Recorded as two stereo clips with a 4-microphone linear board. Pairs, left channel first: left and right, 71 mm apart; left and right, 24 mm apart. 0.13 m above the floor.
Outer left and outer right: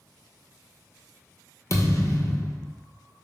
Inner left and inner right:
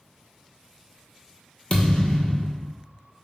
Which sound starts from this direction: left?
A thud, at 1.7 s.